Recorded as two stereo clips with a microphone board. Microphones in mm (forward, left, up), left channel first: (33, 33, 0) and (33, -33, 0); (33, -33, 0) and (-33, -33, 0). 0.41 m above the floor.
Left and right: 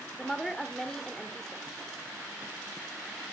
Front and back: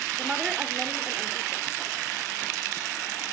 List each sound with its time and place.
0.2 s a woman speaking: 160° left, 1.0 m